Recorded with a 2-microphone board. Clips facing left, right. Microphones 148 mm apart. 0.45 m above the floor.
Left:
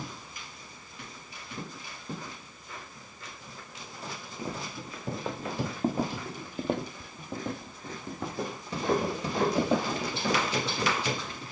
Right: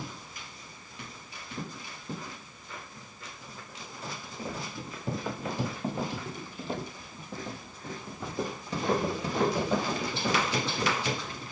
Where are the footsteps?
10° left (ahead or behind), 1.5 m; by 11.5 s 35° left (ahead or behind), 3.5 m.